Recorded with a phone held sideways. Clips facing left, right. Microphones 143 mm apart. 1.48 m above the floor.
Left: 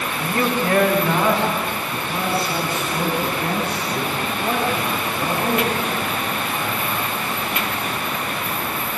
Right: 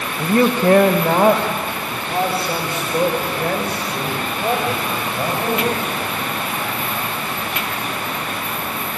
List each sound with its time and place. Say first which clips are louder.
0.2 s a man speaking: right 7 dB; 50° right (ahead or behind), 1.1 m; by 5.8 s 85° right, 8 m